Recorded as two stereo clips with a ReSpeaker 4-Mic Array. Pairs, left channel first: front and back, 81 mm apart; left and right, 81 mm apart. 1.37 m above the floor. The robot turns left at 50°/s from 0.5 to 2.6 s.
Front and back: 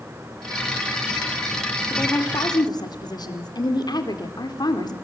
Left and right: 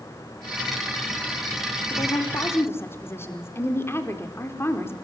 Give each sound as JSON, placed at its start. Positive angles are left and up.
{"t": 1.9, "sound": "a woman speaking", "azimuth_deg": 65, "distance_m": 4.0}